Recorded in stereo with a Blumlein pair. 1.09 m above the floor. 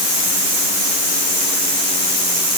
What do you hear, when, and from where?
Only background noise.